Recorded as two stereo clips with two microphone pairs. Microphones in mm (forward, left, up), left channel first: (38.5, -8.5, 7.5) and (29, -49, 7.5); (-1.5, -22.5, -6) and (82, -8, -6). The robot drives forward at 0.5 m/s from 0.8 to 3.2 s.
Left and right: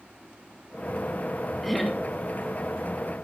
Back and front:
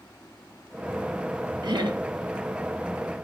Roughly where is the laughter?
Ahead.